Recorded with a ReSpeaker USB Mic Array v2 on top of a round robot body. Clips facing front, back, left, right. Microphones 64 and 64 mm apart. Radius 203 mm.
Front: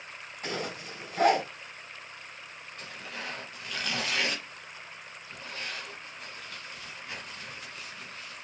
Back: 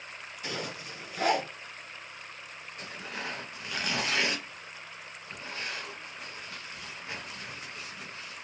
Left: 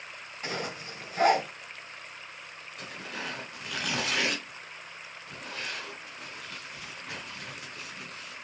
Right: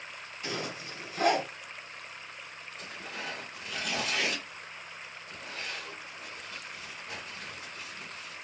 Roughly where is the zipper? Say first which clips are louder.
Front 2 dB, left 2 dB; ahead left.